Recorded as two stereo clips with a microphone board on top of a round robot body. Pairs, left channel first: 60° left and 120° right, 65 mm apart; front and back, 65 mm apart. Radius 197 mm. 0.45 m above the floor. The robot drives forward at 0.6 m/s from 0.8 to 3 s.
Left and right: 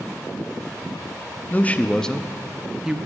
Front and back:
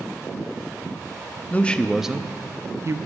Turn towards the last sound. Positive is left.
turn(degrees=165)